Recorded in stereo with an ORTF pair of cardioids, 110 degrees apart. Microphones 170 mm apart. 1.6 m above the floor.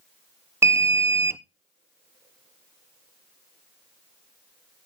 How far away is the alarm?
About 0.8 m.